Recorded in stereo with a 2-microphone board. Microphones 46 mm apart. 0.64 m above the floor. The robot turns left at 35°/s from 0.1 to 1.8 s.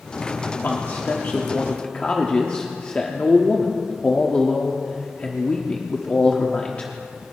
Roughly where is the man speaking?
Left.